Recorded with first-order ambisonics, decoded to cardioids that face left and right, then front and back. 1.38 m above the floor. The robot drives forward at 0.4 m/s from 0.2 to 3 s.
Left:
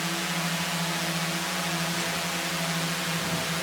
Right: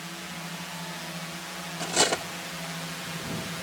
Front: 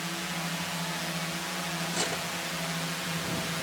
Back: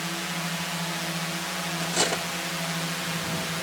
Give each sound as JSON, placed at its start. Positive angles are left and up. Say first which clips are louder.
{"t": 0.0, "sound": "a drone", "louder": "left 9 dB, back 3 dB", "azimuth_deg": 110}
{"t": 1.8, "sound": "cutlery clinking", "louder": "right 3 dB, back 7 dB", "azimuth_deg": -115}